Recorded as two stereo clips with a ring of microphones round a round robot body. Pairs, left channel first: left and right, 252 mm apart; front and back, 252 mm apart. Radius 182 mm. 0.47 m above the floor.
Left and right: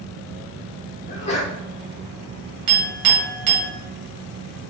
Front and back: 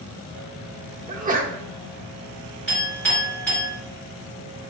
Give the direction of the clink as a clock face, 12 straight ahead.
3 o'clock.